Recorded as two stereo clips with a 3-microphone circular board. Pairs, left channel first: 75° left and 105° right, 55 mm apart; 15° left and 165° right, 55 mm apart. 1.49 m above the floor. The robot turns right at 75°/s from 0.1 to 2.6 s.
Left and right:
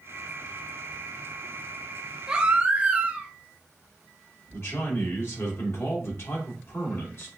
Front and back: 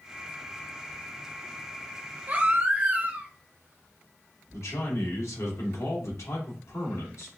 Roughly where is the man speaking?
Ahead left.